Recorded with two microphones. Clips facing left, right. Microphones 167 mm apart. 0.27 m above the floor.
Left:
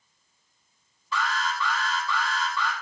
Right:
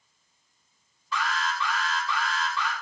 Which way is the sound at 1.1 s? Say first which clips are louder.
Left 1 dB; 15° right (ahead or behind).